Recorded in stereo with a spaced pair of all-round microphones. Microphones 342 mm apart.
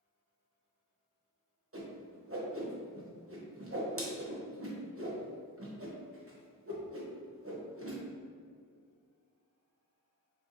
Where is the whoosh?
40° right (ahead or behind), 0.8 m.